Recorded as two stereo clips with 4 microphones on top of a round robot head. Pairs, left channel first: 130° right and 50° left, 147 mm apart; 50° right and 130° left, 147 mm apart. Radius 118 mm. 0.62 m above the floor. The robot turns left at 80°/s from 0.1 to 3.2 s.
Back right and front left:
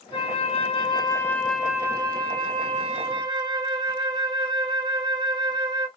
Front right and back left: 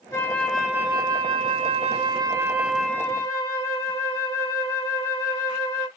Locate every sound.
0.1 s a flute: 100° right, 1.3 m; by 5.9 s 15° left, 1.3 m